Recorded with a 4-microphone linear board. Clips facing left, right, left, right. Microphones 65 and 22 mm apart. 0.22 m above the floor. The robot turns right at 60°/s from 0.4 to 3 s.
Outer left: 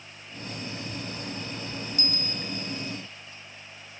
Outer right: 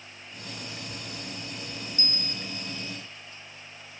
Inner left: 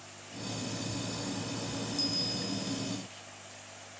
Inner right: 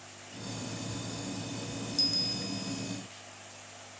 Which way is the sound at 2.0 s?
110° right.